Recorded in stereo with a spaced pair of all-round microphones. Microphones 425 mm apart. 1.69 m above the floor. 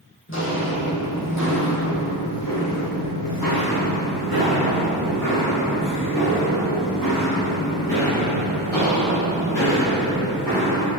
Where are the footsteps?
30° left (ahead or behind), 2.5 m; by 10.9 s 45° left (ahead or behind), 7 m.